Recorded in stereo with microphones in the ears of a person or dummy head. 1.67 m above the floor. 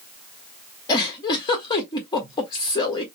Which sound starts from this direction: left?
A giggle, at 0.9 s.